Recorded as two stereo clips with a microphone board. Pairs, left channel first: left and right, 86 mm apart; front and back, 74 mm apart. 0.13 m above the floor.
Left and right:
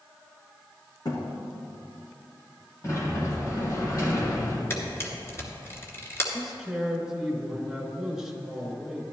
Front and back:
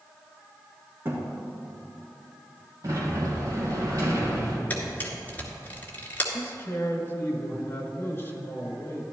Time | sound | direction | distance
1.1 | a thud | 125° left | 4 m
2.8 | a sliding door | 140° left | 3 m
4.7 | a camera shutter | 55° left | 2 m
6.3 | a man speaking | 10° right | 1.8 m